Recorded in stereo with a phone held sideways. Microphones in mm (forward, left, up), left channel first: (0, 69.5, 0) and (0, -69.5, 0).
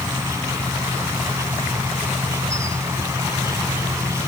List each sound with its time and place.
0.0 s an insect: 20° right (ahead or behind)